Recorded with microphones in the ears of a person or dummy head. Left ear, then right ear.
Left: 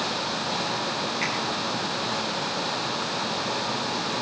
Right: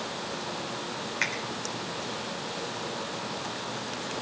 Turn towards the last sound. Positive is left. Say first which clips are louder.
# right 1 dB
turn(degrees=-55)  # may be behind; listen again after turning